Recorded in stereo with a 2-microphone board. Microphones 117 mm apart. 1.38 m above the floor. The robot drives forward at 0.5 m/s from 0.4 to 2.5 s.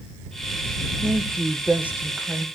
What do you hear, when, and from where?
1.0 s a woman speaking: 20° right (ahead or behind), 0.7 m; by 2.5 s 10° right (ahead or behind), 1.4 m